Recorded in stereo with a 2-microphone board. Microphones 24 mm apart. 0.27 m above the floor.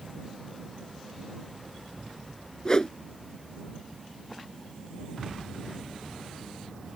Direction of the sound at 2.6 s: 30° left (ahead or behind).